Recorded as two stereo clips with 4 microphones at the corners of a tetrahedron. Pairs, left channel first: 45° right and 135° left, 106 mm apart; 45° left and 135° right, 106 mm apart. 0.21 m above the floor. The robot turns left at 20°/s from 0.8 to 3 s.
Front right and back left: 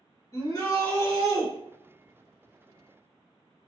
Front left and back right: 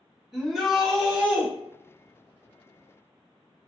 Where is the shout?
45° right, 1.3 m; by 1.5 s 60° right, 1.3 m.